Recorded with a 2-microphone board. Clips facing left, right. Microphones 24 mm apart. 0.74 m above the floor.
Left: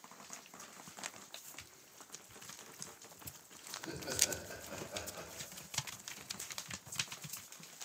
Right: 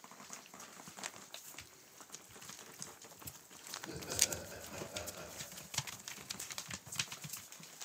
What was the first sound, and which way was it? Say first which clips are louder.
Laughter: even; 60° left (ahead or behind).